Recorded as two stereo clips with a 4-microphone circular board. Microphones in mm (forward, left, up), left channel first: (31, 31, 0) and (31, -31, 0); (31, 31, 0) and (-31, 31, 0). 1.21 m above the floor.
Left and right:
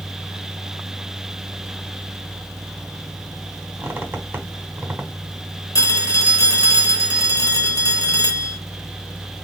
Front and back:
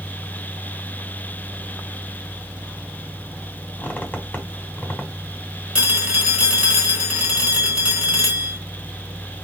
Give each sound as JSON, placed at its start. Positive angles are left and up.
{"t": 3.8, "sound": "a squeak", "azimuth_deg": -50, "distance_m": 1.1}
{"t": 5.8, "sound": "a phone ringing", "azimuth_deg": 110, "distance_m": 1.1}